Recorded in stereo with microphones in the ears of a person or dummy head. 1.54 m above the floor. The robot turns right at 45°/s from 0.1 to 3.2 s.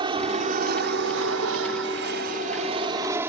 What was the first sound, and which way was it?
An aircraft, 30° right (ahead or behind).